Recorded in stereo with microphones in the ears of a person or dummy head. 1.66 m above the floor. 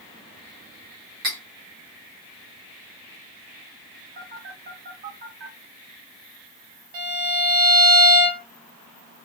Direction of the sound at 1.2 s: 20° right (ahead or behind).